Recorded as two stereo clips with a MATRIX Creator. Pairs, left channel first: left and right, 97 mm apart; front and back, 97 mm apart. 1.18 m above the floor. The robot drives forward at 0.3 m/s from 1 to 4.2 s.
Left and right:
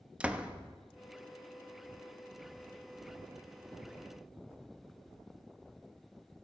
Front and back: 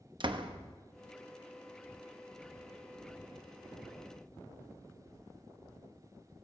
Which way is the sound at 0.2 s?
165° right.